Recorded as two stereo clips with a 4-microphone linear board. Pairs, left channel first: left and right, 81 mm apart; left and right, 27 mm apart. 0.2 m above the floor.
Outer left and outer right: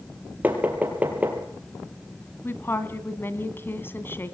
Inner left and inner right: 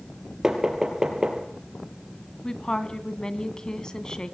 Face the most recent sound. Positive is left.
turn(degrees=30)  # may be behind; listen again after turning